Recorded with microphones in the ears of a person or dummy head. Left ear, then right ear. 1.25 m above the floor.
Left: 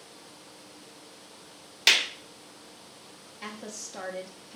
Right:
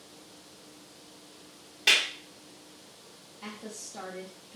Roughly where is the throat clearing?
No throat clearing in this recording.